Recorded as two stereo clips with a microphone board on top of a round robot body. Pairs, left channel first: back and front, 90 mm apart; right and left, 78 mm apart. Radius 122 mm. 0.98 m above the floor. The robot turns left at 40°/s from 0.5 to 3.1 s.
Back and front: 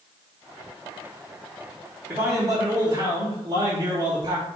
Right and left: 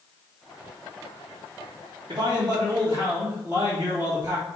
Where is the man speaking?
70° left, 3 m; by 4.5 s 30° left, 3 m.